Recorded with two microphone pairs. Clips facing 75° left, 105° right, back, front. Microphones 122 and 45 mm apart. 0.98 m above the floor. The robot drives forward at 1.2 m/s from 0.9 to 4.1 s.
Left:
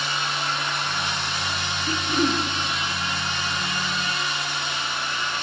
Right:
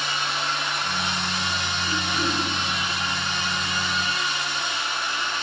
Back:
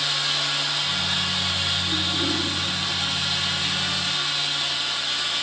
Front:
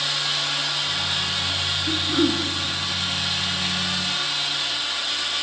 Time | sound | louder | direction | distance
1.9 | throat clearing | left 5 dB, front 3 dB | 25° left | 6 m